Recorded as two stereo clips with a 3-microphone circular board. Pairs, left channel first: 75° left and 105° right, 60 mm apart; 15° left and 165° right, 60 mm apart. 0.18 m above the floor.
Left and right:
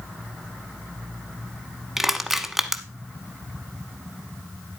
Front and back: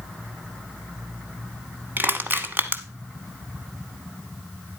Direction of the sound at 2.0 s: 170° left.